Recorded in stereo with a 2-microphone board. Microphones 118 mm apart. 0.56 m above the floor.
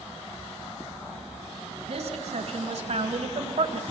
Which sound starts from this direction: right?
A woman speaking, at 1.9 s.